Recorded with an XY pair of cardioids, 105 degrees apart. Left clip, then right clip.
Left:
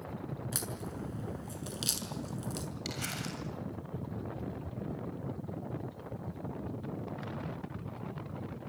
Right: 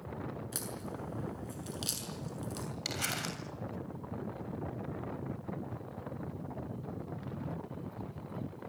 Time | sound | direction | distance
0.5 | a crack | 20° left | 6.5 m
2.9 | crumpling | 30° right | 7 m